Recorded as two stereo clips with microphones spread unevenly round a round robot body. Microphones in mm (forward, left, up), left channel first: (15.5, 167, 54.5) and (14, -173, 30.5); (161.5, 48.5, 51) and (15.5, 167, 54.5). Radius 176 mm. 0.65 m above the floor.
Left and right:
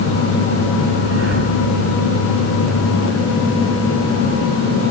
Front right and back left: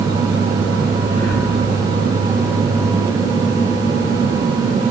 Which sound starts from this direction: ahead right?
Breathing, at 1.0 s.